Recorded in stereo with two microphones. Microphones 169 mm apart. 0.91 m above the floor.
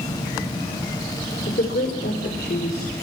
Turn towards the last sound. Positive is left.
turn(degrees=75)  # may be behind; listen again after turning